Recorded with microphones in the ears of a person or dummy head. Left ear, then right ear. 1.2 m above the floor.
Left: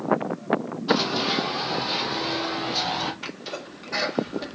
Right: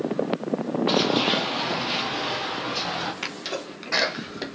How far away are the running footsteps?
About 1.9 m.